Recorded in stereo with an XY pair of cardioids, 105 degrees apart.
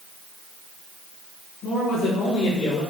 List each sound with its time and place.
1.6 s a man speaking: 60° left, 2.5 m; by 2.8 s 75° left, 4.5 m